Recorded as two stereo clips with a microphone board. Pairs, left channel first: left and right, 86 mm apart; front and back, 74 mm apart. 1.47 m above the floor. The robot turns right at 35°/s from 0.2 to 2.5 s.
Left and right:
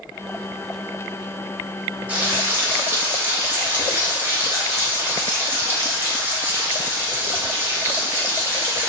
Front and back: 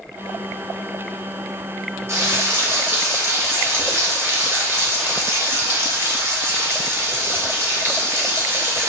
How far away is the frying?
About 0.7 m.